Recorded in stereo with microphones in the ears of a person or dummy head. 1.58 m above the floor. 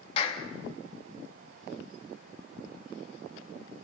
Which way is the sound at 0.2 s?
35° left (ahead or behind).